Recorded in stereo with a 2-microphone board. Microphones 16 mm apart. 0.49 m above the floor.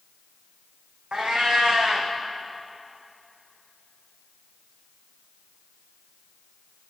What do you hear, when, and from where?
1.1 s a cat meowing: 80° right, 2.5 m